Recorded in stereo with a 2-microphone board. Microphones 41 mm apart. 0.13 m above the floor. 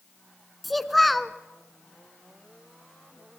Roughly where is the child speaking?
Centre.